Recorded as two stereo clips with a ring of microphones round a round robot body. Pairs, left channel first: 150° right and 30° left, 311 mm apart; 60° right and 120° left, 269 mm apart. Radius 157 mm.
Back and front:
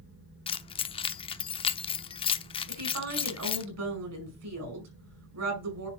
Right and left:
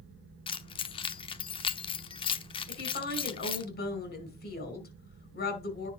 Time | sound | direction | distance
0.5 | keys jangling | 100° right | 0.8 m
2.7 | a woman speaking | 10° right | 5 m